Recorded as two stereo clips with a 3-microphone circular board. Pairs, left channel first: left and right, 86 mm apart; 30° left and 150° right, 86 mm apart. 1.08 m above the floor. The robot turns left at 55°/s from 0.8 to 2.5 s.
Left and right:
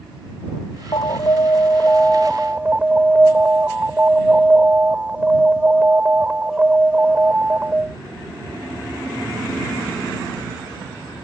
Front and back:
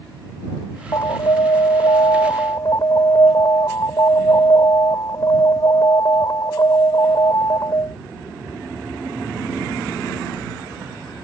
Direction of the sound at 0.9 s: 70° left.